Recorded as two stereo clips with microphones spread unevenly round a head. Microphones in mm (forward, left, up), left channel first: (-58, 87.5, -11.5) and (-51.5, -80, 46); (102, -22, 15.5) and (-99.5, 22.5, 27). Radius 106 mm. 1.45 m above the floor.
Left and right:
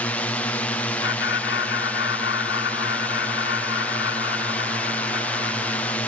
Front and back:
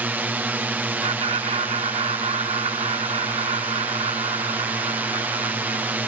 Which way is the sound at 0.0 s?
90° left.